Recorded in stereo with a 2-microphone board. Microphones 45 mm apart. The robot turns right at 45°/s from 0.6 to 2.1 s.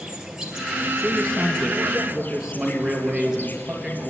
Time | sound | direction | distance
0.0 | an insect | 15° right | 1.7 m
1.0 | a man speaking | 150° left | 2.5 m